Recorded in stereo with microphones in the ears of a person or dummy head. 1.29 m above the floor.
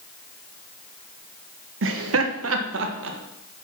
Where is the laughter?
65° right (ahead or behind), 1.0 m; by 3.2 s 70° right (ahead or behind), 1.7 m.